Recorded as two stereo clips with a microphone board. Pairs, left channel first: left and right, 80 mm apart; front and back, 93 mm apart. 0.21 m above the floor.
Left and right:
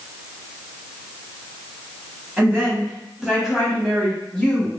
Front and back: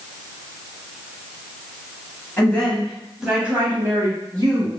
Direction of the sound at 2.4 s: 45° right.